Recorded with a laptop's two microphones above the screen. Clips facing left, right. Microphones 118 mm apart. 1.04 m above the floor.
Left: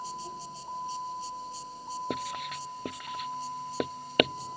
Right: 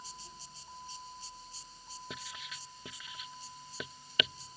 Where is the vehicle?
55° left (ahead or behind); by 4.6 s 60° left (ahead or behind).